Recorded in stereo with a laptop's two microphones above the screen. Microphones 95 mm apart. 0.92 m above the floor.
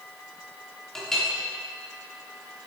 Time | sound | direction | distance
0.9 | a clink | 5° left (ahead or behind) | 1.2 m